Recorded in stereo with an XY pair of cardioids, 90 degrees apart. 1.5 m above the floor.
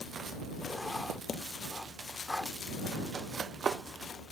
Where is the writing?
20° left.